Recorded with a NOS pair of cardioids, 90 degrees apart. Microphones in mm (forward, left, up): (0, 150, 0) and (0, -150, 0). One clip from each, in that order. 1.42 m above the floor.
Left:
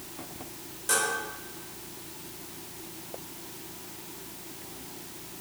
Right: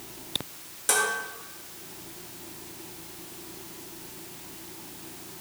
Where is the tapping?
No tapping in this recording.